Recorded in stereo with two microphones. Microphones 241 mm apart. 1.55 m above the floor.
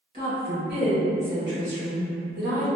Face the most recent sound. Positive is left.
turn(degrees=-75)  # may be behind; listen again after turning